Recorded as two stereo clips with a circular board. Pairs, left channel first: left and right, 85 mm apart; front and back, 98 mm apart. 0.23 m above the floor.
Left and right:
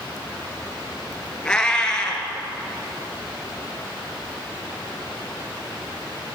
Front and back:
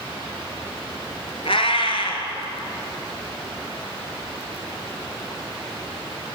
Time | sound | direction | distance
1.4 | a cat meowing | 10° left | 1.3 m